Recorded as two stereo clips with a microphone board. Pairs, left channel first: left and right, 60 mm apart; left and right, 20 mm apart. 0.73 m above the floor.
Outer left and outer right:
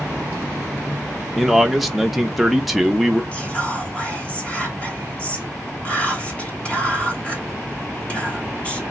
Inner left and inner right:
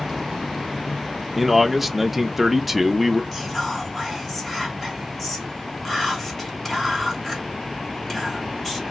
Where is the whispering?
20° left (ahead or behind), 0.9 m.